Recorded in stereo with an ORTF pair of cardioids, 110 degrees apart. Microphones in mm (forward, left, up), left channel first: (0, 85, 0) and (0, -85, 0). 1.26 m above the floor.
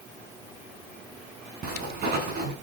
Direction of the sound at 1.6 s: 65° right.